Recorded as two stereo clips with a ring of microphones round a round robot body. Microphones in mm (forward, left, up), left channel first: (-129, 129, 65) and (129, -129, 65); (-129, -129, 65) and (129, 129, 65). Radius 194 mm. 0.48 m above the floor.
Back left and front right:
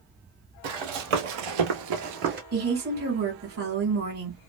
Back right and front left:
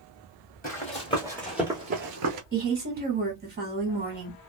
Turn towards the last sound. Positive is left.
turn(degrees=0)